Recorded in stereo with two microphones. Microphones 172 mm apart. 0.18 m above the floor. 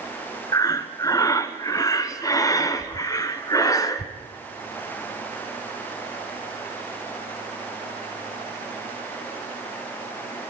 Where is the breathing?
20° left (ahead or behind), 1.3 m.